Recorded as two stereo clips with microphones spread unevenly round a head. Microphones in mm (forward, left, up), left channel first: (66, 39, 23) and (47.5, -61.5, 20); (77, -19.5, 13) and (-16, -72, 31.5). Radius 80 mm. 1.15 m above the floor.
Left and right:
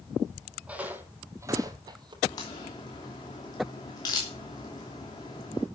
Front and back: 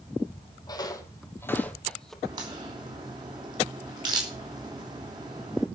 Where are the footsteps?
25° right, 2.5 m; by 2.1 s 60° right, 2 m.